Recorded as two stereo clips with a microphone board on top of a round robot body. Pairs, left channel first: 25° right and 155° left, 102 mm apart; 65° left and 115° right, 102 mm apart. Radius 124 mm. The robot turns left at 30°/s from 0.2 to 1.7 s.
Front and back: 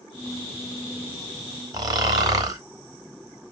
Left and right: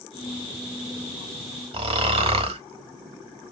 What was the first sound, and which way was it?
Snoring, 145° right.